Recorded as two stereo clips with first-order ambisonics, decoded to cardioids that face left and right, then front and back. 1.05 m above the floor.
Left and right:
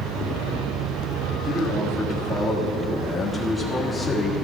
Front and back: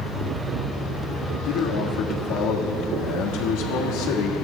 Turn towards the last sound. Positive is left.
turn(degrees=10)